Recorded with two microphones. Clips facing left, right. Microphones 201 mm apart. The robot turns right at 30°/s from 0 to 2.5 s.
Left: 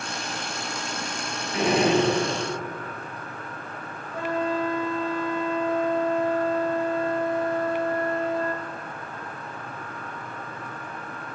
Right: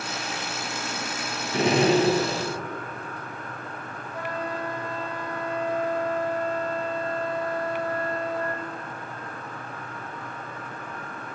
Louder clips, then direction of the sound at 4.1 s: Left 6 dB; 25° left (ahead or behind).